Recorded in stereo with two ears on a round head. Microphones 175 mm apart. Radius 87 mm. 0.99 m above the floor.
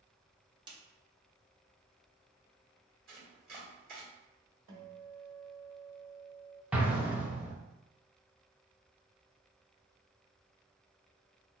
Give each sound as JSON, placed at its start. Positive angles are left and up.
{"t": 0.7, "sound": "a snare drum", "side_deg": -25, "distance_m": 0.5}
{"t": 3.1, "sound": "chopping", "side_deg": -50, "distance_m": 1.4}
{"t": 4.7, "sound": "a guitar", "side_deg": -65, "distance_m": 1.4}
{"t": 6.7, "sound": "an explosion", "side_deg": -5, "distance_m": 0.6}